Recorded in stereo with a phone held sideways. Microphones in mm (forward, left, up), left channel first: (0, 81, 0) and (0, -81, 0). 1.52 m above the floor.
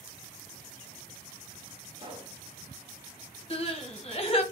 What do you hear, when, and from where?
2.0 s a pop: 35° right (ahead or behind), 1.1 m
3.5 s crying: 35° left (ahead or behind), 1.1 m